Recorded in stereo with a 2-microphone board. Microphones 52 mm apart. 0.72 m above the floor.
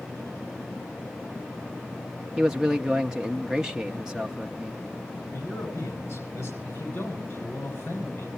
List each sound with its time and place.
2.4 s a man speaking: 10° right (ahead or behind), 0.6 m
5.3 s a man speaking: 50° left (ahead or behind), 8 m
6.7 s a man speaking: 40° left (ahead or behind), 7.5 m